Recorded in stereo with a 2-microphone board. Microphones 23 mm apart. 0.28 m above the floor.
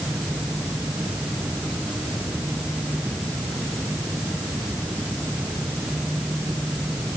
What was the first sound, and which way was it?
Only background noise.